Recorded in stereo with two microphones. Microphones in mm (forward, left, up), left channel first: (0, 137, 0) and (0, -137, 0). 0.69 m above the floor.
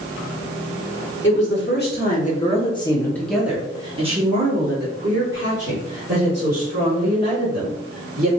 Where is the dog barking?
I don't hear a dog barking.